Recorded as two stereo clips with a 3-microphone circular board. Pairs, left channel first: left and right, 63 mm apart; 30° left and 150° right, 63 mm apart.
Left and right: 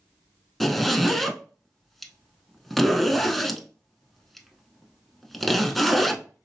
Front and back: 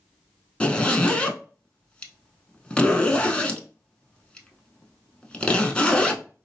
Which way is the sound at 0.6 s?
5° left.